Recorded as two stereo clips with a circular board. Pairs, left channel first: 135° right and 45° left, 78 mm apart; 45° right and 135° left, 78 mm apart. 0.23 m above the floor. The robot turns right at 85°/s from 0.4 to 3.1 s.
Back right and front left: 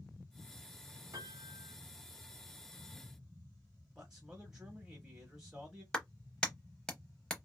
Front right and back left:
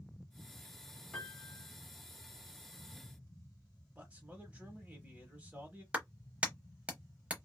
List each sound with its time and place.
1.1 s a piano: 30° left, 1.4 m; by 1.8 s 80° left, 1.4 m
4.0 s a man speaking: 115° left, 1.0 m
5.9 s a clap: 165° left, 0.7 m